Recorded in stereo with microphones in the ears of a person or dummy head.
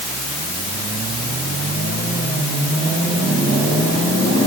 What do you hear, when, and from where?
Only background noise.